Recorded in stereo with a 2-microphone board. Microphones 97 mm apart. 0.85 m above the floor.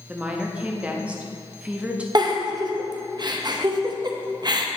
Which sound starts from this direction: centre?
A woman speaking, at 0.1 s.